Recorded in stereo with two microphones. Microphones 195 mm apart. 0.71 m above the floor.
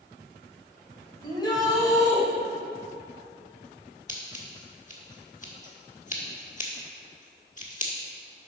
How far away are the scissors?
About 1.6 m.